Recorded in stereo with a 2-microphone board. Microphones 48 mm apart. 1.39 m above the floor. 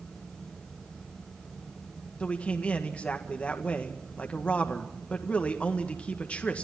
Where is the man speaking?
30° left (ahead or behind), 1.6 m.